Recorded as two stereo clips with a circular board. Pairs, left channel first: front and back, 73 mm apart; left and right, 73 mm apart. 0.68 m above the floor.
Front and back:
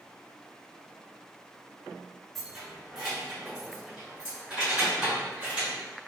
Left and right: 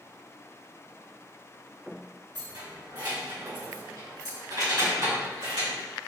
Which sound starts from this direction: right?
Keys jangling, at 2.4 s.